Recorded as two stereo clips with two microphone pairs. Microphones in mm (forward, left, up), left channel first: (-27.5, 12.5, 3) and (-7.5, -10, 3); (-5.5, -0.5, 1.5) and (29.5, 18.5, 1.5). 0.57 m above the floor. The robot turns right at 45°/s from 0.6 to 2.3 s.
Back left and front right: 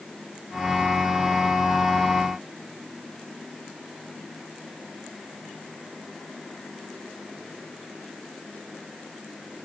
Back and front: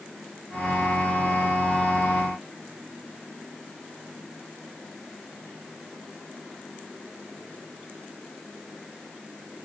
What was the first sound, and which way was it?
Only background noise.